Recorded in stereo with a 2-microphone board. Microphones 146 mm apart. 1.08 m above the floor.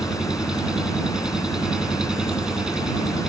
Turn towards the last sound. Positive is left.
turn(degrees=-5)  # may be behind; listen again after turning